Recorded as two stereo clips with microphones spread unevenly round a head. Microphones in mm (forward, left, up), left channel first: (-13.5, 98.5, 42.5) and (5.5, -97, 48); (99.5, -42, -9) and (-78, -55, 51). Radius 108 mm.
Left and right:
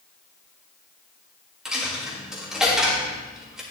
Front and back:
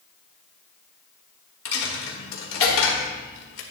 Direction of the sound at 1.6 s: Straight ahead.